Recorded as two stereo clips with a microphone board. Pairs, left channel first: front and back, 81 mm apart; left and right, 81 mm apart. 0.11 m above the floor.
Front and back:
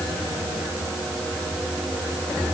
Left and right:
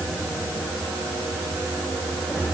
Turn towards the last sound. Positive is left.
No sound to turn to.